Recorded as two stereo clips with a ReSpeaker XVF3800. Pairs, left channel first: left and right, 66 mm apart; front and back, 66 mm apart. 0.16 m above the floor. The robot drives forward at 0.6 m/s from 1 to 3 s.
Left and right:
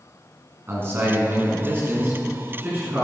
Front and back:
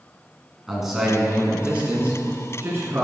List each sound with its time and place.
0.7 s a man speaking: 100° right, 1.9 m; by 3.0 s 140° right, 2.5 m